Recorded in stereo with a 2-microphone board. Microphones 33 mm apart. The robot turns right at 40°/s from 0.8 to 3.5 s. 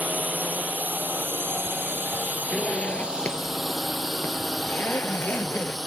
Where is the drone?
55° right (ahead or behind); by 5.9 s 5° left (ahead or behind).